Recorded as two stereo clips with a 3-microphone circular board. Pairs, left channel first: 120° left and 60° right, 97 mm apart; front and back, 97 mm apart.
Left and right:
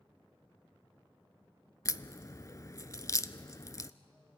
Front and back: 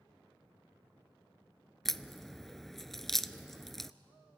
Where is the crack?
85° left, 0.5 m.